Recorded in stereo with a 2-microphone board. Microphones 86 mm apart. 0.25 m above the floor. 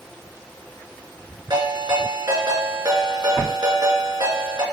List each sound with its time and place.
1.5 s a ringtone: 55° right (ahead or behind), 2.5 m